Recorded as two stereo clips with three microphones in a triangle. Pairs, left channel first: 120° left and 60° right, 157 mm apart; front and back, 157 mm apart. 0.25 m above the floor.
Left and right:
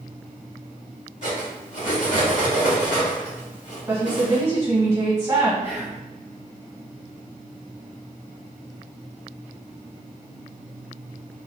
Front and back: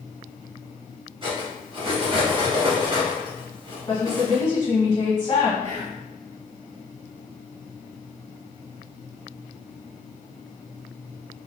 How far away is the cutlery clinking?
About 1.3 m.